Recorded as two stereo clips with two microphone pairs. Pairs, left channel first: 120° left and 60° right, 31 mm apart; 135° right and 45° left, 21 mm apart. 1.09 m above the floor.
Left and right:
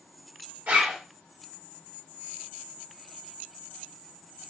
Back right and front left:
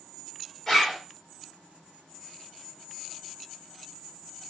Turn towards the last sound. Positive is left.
turn(degrees=-60)